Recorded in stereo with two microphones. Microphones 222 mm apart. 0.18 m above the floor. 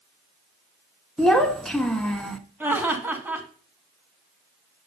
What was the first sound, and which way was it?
A child speaking, centre (ahead or behind).